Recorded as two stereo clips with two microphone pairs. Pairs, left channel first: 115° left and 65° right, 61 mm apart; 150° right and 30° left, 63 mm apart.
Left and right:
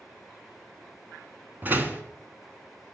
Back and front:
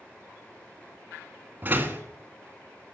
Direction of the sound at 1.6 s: 15° right.